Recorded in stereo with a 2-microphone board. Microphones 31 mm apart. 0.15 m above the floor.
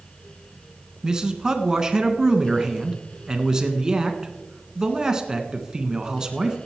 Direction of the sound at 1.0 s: 25° right (ahead or behind).